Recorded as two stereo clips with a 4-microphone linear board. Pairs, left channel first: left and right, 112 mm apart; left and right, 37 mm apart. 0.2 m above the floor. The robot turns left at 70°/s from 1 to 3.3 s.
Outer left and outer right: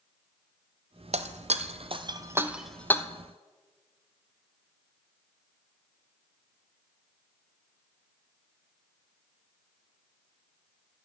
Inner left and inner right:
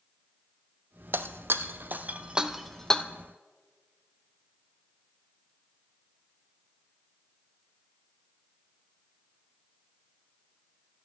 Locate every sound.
1.1 s breaking glass: 70° right (ahead or behind), 0.7 m; by 3.0 s 25° left (ahead or behind), 0.7 m